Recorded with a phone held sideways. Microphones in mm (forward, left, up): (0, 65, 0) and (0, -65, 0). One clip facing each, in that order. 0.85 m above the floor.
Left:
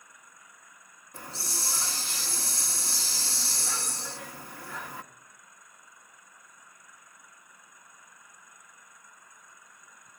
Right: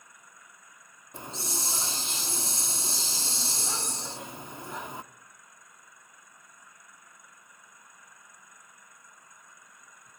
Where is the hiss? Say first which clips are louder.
Right 3 dB; 20° right (ahead or behind), 0.8 m.